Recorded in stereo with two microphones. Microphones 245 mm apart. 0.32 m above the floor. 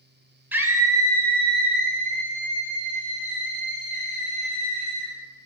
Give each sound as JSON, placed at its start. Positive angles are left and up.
{"t": 0.5, "sound": "a scream", "side_deg": -10, "distance_m": 0.9}